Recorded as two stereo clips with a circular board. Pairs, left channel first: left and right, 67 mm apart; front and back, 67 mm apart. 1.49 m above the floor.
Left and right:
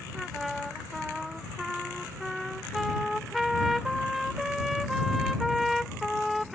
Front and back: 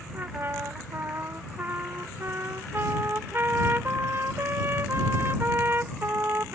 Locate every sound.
0.1 s a trumpet: 175° right